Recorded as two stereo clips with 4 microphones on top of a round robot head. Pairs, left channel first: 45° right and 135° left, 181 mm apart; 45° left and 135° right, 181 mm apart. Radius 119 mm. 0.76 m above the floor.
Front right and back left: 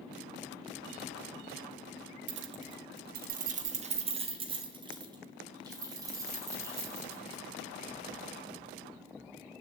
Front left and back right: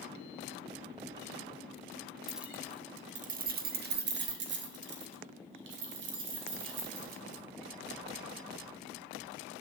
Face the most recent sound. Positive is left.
turn(degrees=-150)